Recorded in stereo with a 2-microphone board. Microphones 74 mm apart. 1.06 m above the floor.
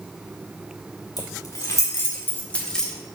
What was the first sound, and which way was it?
Keys jangling, 60° left (ahead or behind).